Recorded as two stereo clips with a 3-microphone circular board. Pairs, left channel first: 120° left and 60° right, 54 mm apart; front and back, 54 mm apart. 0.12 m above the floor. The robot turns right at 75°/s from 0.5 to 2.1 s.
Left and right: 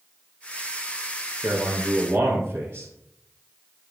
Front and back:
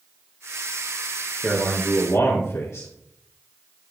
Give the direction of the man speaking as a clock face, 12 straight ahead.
2 o'clock.